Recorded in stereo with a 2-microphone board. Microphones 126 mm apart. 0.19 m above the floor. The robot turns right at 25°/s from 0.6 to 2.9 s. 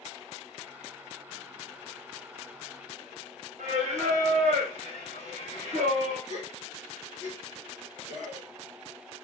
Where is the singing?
75° right (ahead or behind), 1.5 m.